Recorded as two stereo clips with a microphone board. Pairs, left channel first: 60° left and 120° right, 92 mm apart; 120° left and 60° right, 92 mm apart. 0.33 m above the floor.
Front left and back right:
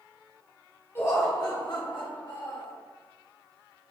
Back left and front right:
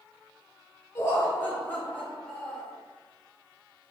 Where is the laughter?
95° left, 0.9 m; by 2.7 s 40° left, 2 m.